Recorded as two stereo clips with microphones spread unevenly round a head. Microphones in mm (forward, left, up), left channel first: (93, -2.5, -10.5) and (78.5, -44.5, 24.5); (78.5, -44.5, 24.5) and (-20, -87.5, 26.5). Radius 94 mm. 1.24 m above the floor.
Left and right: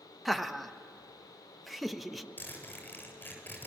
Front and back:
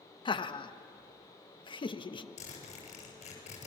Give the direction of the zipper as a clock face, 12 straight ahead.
11 o'clock.